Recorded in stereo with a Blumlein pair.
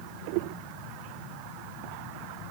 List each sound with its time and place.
Only background noise.